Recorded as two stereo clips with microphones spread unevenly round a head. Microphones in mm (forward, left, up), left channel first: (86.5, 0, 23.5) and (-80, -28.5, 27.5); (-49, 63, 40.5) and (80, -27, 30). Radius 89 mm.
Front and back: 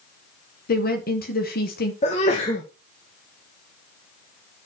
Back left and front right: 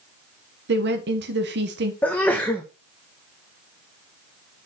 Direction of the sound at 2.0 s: 65° left.